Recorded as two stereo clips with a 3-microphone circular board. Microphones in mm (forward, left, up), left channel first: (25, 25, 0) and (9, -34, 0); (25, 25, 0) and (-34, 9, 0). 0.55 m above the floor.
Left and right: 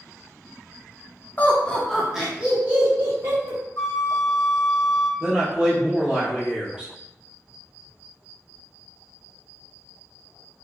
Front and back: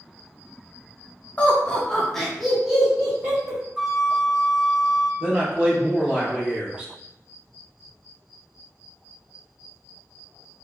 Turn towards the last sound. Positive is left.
turn(degrees=-150)